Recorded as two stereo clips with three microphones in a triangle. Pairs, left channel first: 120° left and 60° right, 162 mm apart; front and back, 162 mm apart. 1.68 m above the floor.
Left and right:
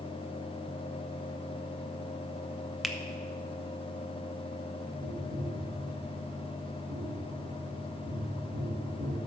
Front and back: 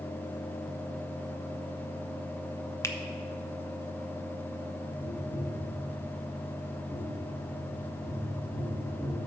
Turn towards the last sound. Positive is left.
turn(degrees=-90)